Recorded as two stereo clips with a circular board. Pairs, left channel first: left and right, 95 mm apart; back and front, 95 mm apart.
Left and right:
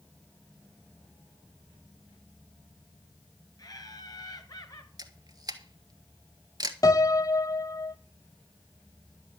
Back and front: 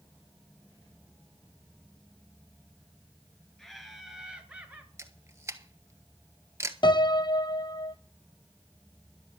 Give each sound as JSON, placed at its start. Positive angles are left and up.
{"t": 3.6, "sound": "laughter", "azimuth_deg": 95, "distance_m": 2.0}
{"t": 5.0, "sound": "a camera shutter", "azimuth_deg": -55, "distance_m": 1.1}
{"t": 6.8, "sound": "a piano", "azimuth_deg": 145, "distance_m": 0.5}